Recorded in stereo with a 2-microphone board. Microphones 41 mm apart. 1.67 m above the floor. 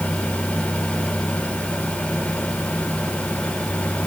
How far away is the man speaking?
I don't hear a man speaking.